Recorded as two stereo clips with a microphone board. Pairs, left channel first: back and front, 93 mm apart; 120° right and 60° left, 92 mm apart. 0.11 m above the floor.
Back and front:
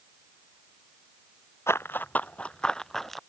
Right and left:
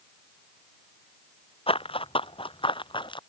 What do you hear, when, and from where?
1.7 s running footsteps: 115° right; by 3.2 s 90° right